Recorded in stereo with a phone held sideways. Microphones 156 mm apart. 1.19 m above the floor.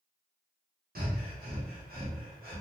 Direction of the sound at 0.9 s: 75° right (ahead or behind).